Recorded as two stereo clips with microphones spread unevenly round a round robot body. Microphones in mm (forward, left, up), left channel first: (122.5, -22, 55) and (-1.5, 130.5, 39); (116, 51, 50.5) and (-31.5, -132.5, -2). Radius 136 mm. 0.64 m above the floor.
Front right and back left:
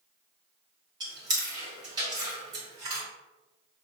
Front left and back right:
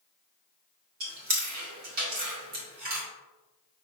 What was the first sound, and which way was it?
Chewing, 165° right.